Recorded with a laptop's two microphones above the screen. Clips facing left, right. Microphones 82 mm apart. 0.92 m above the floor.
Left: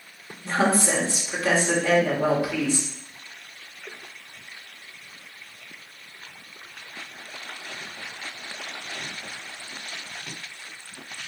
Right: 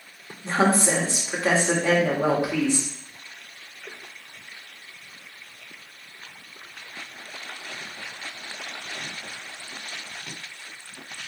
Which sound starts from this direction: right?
A woman speaking, at 0.4 s.